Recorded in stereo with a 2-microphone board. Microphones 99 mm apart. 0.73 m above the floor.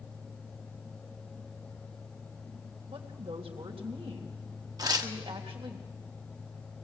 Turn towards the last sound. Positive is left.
turn(degrees=-45)  # may be behind; listen again after turning